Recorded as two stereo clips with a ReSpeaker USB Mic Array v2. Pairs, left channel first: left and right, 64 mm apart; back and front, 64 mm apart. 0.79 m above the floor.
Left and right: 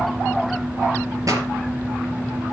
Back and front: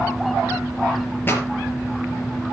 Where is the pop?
120° right, 4.5 m.